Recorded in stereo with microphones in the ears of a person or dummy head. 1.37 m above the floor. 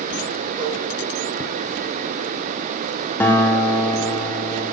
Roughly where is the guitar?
Centre.